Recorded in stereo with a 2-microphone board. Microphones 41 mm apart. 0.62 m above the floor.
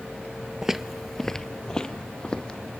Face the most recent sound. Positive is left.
turn(degrees=20)  # may be behind; listen again after turning